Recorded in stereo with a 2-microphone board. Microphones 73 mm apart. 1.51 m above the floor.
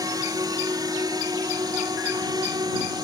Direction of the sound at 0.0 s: 65° right (ahead or behind).